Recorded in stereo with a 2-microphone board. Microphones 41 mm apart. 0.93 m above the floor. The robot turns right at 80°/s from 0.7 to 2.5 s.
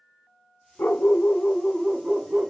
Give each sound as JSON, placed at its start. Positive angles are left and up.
{"t": 0.8, "sound": "a dog barking", "azimuth_deg": 95, "distance_m": 1.0}